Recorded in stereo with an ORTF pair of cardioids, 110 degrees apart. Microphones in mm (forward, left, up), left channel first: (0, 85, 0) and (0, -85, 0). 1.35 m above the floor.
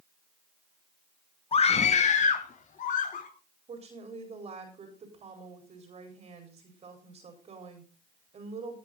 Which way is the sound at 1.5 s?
35° left.